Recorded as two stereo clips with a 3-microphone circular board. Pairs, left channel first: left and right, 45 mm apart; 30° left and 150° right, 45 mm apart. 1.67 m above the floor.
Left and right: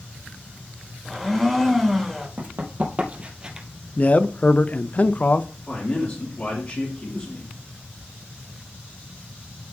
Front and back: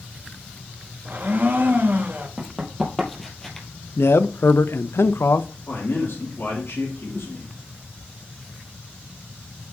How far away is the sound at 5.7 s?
About 3 m.